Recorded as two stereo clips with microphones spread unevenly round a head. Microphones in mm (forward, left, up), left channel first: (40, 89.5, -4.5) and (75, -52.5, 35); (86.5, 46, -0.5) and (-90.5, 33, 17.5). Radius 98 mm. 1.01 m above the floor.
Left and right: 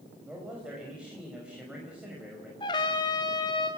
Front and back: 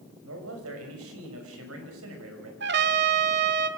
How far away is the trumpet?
About 1.5 m.